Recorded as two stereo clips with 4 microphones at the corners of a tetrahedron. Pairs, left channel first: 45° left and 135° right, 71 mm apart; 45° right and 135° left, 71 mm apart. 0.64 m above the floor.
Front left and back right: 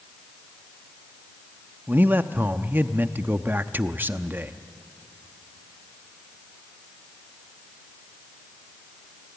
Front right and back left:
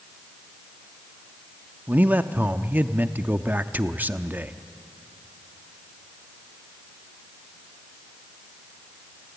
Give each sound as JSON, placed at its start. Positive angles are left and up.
{"t": 1.9, "sound": "a man speaking", "azimuth_deg": 180, "distance_m": 0.6}